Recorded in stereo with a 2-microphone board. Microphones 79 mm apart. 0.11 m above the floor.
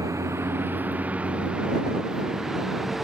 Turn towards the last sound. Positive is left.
turn(degrees=0)  # may be behind; listen again after turning